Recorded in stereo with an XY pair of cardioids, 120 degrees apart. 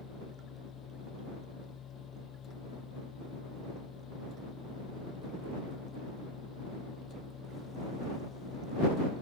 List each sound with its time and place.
0.0 s a machine running: 50° left